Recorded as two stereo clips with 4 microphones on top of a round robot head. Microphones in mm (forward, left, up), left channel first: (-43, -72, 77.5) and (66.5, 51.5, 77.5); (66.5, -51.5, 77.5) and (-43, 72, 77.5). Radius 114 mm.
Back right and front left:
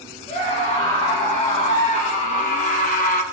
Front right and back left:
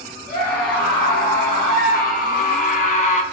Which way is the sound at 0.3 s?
85° right.